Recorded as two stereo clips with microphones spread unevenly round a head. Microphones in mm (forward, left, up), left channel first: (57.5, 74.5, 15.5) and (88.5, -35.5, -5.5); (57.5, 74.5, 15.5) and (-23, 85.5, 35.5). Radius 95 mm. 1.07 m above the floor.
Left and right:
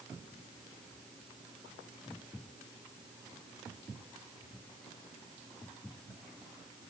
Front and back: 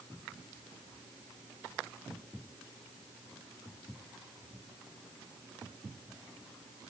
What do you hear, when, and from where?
Only background noise.